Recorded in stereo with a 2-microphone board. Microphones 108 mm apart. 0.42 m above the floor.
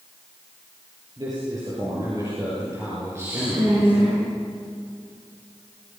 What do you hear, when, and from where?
1.2 s a man speaking: 35° right (ahead or behind), 9.5 m; by 4.2 s 20° right (ahead or behind), 9 m
3.1 s a woman speaking: 25° right (ahead or behind), 7 m